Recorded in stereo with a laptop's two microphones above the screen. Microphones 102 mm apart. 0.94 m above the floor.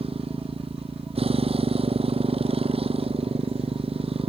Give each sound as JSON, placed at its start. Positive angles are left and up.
{"t": 0.0, "sound": "a motorcycle", "side_deg": -70}